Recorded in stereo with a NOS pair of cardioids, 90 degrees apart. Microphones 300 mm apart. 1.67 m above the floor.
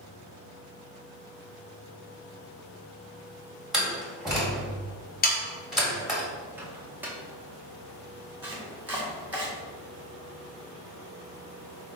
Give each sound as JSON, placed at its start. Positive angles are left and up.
{"t": 3.7, "sound": "a door slam", "azimuth_deg": 0, "distance_m": 1.9}
{"t": 5.2, "sound": "sawing", "azimuth_deg": 30, "distance_m": 1.3}
{"t": 6.6, "sound": "a microwave", "azimuth_deg": -5, "distance_m": 1.3}
{"t": 8.4, "sound": "chopping", "azimuth_deg": -5, "distance_m": 1.9}